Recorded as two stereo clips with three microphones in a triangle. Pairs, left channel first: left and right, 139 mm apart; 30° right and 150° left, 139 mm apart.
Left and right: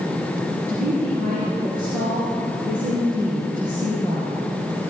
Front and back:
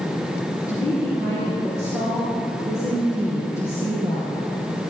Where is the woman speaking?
95° right, 4 m.